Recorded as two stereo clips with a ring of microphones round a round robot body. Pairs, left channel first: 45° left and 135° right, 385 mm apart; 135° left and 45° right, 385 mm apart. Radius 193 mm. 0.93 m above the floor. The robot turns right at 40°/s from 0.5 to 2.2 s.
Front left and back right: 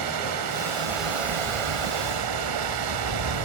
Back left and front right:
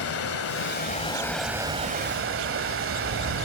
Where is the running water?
170° right, 1.5 m; by 3.4 s 105° right, 1.5 m.